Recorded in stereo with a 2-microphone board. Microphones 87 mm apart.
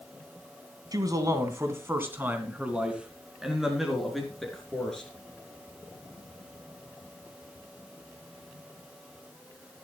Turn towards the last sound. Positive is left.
turn(degrees=5)  # may be behind; listen again after turning